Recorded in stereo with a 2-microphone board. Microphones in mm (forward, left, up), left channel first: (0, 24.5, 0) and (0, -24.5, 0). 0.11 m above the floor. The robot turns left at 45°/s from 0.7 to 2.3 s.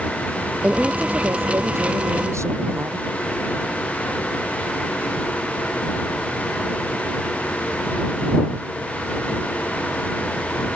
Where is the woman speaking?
25° right; by 3.0 s 100° right.